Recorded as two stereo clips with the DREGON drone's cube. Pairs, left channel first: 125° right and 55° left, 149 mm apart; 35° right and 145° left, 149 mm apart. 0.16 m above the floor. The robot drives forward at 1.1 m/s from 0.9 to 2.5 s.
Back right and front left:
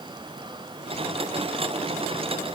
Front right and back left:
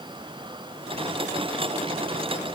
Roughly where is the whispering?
I don't hear whispering.